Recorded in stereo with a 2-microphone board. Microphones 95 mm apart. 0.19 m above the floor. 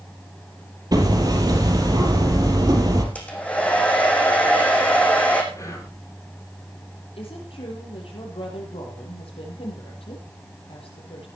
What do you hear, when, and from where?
0.9 s hammering: 40° right (ahead or behind), 3.5 m
3.1 s a hair dryer: 15° left (ahead or behind), 3.5 m
5.5 s whispering: 35° left (ahead or behind), 7 m
7.2 s a woman speaking: 75° left (ahead or behind), 6 m